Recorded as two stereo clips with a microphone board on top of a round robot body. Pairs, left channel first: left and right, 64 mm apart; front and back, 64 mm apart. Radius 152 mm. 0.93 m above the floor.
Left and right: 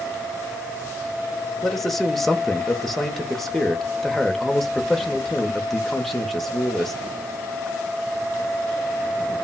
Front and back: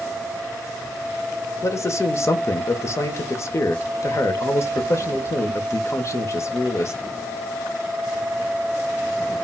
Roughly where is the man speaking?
Ahead.